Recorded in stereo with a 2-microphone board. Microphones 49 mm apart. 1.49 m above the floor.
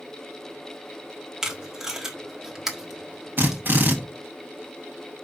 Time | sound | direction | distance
1.4 | tape being pulled | 10° right (ahead or behind) | 1.4 m
3.4 | a drill | 45° right (ahead or behind) | 1.6 m